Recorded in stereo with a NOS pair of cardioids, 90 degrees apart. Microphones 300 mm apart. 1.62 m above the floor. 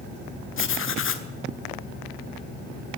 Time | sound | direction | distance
0.6 | writing | 45° left | 1.3 m